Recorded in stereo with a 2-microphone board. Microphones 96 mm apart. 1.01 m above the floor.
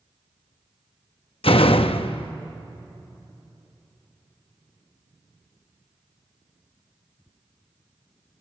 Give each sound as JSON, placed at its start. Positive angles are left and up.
{"t": 1.4, "sound": "a door slam", "side_deg": 75, "distance_m": 0.7}